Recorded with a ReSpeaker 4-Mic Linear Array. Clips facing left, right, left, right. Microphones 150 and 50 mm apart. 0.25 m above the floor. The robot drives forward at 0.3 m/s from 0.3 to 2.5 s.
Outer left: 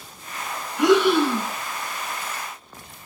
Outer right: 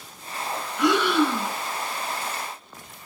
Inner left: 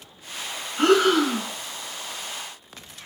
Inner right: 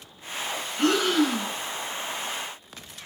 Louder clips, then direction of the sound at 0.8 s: Outer left 4 dB, inner left 4 dB; 55° left (ahead or behind).